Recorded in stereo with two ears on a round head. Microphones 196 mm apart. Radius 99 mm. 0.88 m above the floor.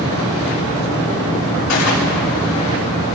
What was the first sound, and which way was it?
A gunshot, 85° left.